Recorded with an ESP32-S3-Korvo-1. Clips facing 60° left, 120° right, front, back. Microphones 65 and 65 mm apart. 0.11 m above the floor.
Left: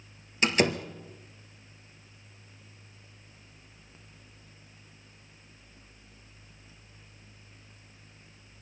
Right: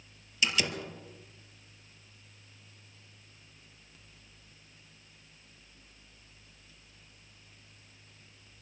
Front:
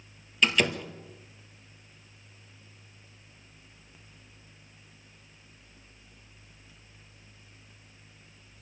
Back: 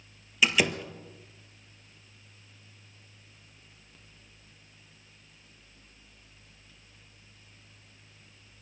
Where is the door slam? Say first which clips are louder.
Left 6 dB, even; 100° left, 2 m.